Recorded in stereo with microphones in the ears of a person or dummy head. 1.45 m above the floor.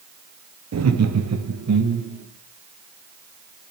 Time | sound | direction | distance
0.7 | laughter | 85° right | 0.9 m